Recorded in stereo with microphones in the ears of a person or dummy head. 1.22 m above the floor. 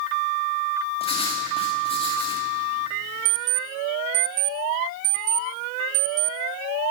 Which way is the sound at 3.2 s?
35° right (ahead or behind).